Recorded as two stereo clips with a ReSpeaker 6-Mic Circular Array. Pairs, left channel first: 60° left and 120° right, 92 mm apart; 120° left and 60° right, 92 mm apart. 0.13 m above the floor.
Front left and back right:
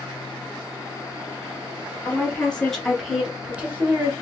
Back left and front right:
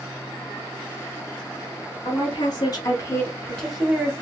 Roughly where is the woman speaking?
Behind left.